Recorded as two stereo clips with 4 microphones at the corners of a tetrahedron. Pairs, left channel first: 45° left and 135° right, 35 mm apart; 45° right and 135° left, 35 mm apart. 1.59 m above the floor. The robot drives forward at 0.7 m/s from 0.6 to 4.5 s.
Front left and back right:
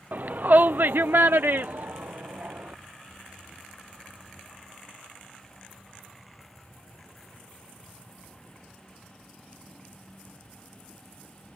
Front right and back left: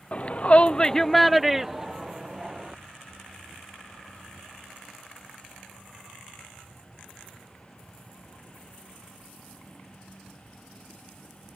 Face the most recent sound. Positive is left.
turn(degrees=-170)